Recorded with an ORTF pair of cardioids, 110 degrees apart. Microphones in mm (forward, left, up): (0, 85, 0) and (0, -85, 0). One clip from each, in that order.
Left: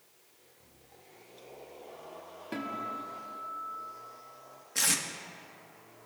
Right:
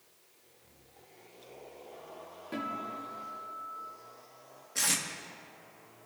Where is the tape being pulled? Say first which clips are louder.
Left 1 dB; 15° left, 1.7 m.